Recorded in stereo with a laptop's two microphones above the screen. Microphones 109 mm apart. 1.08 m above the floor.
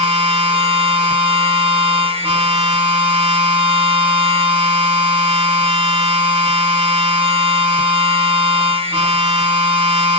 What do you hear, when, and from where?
0.0 s a machine running: 55° right (ahead or behind), 1.0 m